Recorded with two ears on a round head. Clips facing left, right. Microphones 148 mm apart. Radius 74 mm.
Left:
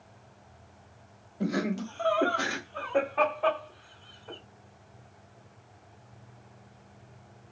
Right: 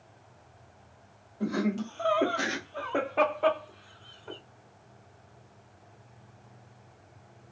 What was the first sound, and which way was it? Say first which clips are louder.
Laughter: right 1 dB; 25° left (ahead or behind).